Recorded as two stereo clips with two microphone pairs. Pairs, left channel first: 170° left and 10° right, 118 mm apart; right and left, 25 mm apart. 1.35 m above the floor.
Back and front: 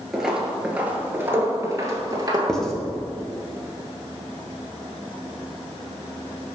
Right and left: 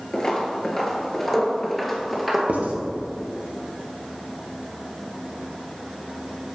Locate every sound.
0.1 s footsteps: 100° right, 1.4 m; by 2.4 s 10° left, 1.6 m
2.5 s writing: 85° left, 1.0 m